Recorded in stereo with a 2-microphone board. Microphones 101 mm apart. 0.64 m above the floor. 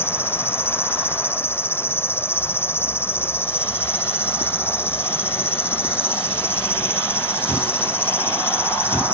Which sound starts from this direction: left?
An insect, at 0.0 s.